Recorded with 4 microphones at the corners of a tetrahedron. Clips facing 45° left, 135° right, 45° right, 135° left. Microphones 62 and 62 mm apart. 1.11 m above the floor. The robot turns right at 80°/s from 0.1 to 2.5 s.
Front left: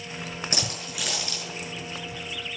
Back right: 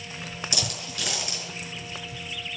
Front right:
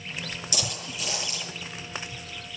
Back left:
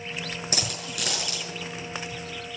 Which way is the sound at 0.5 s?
90° left.